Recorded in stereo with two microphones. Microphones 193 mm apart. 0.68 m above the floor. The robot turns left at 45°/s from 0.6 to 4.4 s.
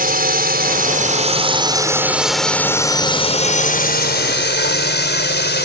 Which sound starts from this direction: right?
A drone, at 0.0 s.